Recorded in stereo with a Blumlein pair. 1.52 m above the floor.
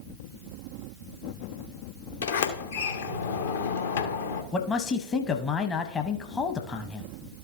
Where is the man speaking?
20° left, 0.8 m.